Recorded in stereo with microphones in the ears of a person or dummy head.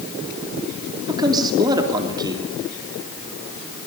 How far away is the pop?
I don't hear a pop.